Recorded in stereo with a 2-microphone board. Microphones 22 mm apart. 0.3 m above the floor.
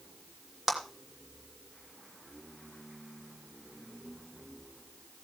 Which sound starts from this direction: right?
A clap, at 0.7 s.